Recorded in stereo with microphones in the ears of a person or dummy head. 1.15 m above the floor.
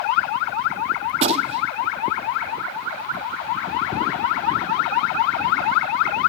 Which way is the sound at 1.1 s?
30° right (ahead or behind).